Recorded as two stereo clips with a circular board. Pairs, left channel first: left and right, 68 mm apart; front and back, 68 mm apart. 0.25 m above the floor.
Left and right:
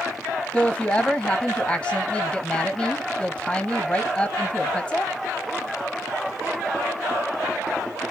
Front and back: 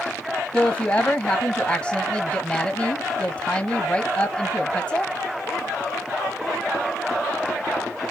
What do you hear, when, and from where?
0.5 s a woman speaking: 45° left, 1.0 m